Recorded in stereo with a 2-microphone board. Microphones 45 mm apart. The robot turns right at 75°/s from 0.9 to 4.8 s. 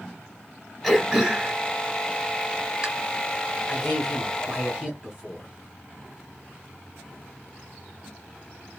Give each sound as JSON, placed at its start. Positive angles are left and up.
{"t": 0.8, "sound": "throat clearing", "side_deg": 5, "distance_m": 1.0}
{"t": 3.7, "sound": "a man speaking", "azimuth_deg": 145, "distance_m": 1.5}